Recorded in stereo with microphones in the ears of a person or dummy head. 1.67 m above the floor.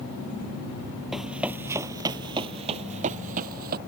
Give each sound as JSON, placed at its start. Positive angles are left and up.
{"t": 1.1, "sound": "running footsteps", "side_deg": 5}